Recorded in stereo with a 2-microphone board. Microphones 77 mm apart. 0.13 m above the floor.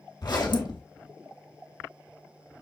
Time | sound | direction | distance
0.2 | a zipper | 65° left (ahead or behind) | 1.8 m